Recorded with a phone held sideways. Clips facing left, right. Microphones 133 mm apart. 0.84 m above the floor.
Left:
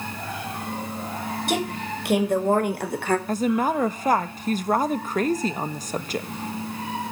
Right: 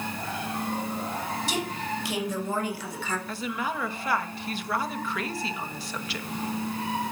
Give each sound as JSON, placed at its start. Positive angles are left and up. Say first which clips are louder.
{"t": 1.5, "sound": "a woman speaking", "louder": "left 4 dB", "side_deg": 55, "distance_m": 4.5}
{"t": 3.3, "sound": "a woman speaking", "louder": "left 9 dB", "side_deg": 40, "distance_m": 1.1}